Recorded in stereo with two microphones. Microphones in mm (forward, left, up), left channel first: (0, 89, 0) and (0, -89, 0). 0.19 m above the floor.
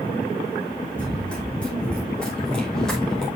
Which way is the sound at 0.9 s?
5° left (ahead or behind).